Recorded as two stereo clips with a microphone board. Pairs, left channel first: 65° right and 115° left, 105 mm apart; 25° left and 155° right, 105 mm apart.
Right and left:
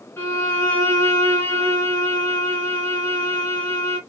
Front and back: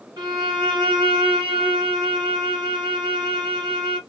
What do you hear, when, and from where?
0.2 s a violin: 130° right, 2.5 m